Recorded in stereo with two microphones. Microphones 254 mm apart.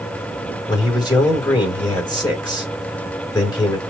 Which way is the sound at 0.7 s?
15° left (ahead or behind).